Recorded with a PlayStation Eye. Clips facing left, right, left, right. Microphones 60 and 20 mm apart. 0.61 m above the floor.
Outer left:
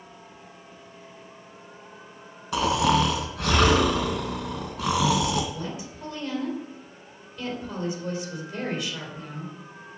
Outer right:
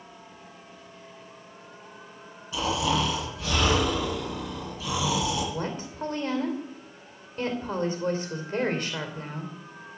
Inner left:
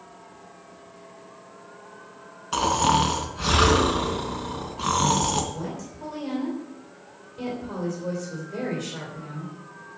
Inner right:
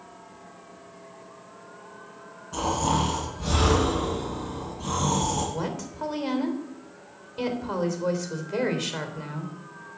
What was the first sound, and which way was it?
Snoring, 70° left (ahead or behind).